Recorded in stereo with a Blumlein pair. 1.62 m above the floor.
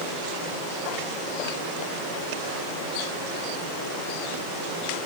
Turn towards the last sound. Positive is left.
No sound to turn to.